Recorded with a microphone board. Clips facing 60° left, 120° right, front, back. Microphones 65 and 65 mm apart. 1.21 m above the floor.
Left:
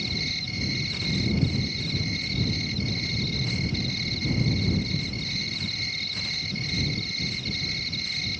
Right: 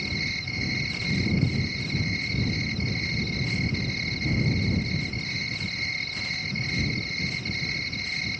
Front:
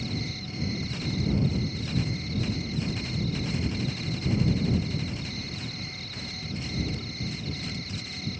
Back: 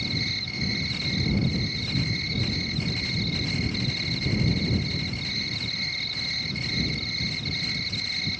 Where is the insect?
175° right.